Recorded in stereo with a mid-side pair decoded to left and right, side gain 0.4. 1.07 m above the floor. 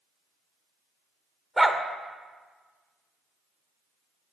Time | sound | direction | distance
1.6 | a dog barking | 10° right | 1.6 m